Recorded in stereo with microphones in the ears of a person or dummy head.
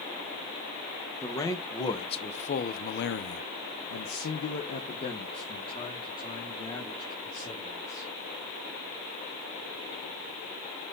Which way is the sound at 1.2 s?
15° left (ahead or behind).